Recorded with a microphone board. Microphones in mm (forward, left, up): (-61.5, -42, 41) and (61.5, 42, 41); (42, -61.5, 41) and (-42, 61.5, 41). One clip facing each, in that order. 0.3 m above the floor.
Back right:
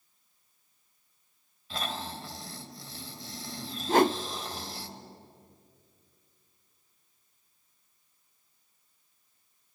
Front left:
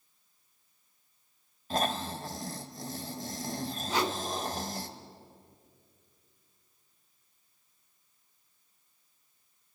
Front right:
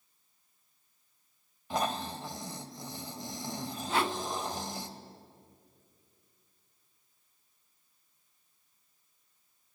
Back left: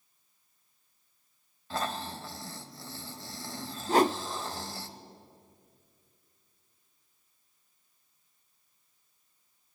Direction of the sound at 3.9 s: 175° left.